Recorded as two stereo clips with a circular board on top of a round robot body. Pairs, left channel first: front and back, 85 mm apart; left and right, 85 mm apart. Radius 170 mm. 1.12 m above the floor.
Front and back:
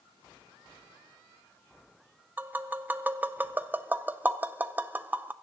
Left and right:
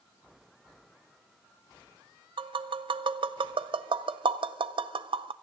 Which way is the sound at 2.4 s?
110° right.